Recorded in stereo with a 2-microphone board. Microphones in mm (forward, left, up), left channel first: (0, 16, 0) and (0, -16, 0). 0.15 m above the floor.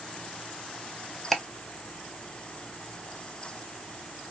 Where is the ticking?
Centre (ahead or behind), 0.7 m.